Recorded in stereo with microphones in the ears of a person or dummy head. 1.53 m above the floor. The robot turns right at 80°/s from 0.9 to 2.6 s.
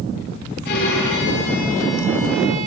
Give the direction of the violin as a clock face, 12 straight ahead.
10 o'clock.